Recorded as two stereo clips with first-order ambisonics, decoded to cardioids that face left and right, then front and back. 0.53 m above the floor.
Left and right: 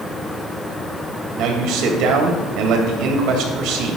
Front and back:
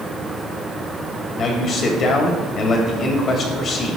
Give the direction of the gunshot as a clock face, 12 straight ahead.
I don't hear a gunshot.